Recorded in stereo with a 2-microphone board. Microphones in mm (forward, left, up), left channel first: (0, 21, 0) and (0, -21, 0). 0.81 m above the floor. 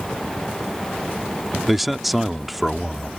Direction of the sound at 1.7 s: Centre (ahead or behind).